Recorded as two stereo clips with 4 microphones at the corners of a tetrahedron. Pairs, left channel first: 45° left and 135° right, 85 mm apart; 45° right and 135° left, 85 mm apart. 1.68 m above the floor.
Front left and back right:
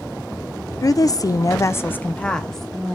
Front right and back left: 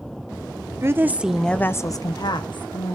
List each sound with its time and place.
0.8 s a woman speaking: 80° left, 0.8 m; by 3.0 s 45° right, 1.3 m